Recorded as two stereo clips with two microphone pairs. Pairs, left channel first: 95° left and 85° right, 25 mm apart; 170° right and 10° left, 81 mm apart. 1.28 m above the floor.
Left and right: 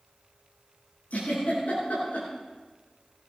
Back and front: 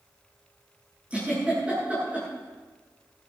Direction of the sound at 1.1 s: 85° left.